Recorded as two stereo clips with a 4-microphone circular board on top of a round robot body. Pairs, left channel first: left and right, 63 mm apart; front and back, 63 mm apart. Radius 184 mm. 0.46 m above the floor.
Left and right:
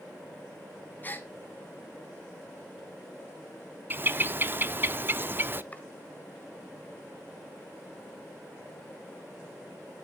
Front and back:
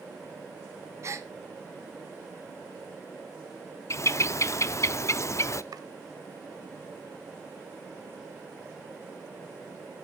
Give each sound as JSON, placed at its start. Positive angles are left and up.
{"t": 1.0, "sound": "a gasp", "azimuth_deg": 145, "distance_m": 1.7}
{"t": 3.9, "sound": "a bird", "azimuth_deg": -35, "distance_m": 0.8}
{"t": 5.7, "sound": "chopping", "azimuth_deg": 155, "distance_m": 1.0}